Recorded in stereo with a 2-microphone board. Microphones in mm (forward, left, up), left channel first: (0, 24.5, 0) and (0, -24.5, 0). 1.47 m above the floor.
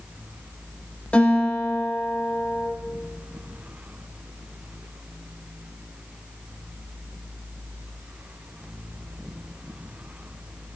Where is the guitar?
30° left (ahead or behind), 4 m.